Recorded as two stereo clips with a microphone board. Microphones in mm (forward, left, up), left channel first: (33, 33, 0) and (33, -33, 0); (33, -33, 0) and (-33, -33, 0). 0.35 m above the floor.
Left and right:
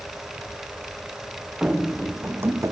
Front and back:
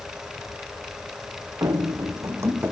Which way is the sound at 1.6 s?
165° right.